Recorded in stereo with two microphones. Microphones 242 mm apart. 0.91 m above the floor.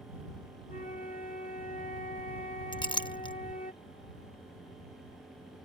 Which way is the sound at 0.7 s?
35° left (ahead or behind).